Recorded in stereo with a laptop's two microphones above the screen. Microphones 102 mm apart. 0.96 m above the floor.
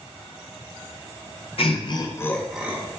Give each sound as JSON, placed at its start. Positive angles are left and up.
{"t": 1.6, "sound": "laughter", "side_deg": 60, "distance_m": 0.6}